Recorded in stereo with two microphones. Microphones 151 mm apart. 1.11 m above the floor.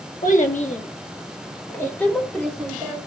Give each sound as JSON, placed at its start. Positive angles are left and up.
{"t": 0.2, "sound": "a child speaking", "side_deg": 60, "distance_m": 1.8}